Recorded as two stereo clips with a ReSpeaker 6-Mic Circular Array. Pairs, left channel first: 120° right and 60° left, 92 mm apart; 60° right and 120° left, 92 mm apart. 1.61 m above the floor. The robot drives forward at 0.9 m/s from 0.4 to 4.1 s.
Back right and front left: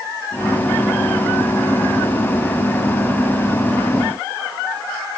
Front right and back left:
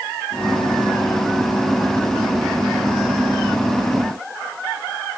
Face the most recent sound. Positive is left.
No sound to turn to.